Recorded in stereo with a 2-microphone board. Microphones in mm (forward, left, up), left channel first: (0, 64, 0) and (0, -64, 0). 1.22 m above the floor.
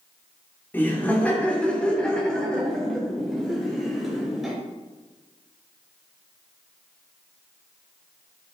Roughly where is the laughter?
Centre.